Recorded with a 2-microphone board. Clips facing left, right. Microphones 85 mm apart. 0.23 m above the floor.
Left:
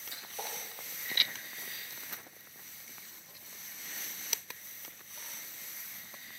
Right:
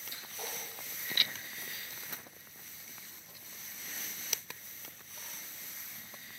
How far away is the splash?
About 4 m.